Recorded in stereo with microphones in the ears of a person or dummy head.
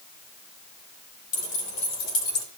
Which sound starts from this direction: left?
Keys jangling, at 1.3 s.